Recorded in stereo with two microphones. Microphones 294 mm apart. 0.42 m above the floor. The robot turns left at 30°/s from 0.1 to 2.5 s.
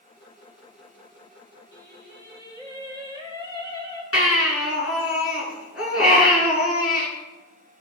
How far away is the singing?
About 5.5 m.